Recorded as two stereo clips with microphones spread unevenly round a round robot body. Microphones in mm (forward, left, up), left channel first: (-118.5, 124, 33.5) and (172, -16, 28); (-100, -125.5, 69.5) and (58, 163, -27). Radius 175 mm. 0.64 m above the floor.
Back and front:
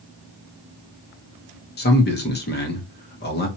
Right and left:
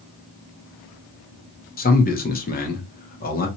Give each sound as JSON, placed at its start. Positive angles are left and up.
{"t": 1.8, "sound": "a man speaking", "azimuth_deg": 170, "distance_m": 0.9}